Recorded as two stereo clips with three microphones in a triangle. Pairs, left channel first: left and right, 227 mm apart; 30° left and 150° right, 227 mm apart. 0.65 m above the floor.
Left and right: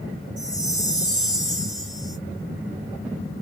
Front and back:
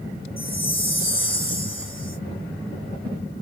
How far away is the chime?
About 2.0 m.